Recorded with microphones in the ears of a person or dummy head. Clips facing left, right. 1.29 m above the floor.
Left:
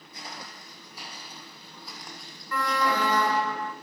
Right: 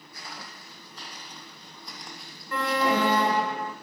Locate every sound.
0.1 s footsteps: 25° left (ahead or behind), 3.5 m; by 3.5 s 15° right (ahead or behind), 3.5 m
2.5 s an alarm: 25° right (ahead or behind), 0.6 m